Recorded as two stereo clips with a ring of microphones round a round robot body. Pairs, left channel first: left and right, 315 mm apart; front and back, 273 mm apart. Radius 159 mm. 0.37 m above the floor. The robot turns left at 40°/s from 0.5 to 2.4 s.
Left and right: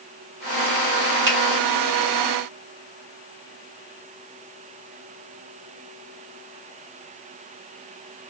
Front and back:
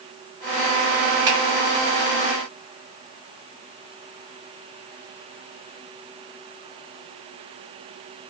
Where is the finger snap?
110° right, 1.4 m; by 1.4 s 115° right, 1.4 m.